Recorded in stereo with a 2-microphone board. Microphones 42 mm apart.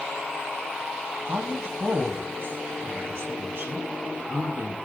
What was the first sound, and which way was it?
A woman speaking, 70° right (ahead or behind).